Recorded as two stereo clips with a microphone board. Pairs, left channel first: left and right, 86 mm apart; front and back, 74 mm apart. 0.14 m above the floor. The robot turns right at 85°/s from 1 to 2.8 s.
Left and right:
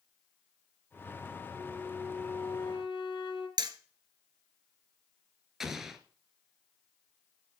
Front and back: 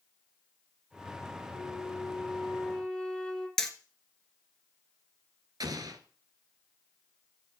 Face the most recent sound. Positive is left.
turn(degrees=-175)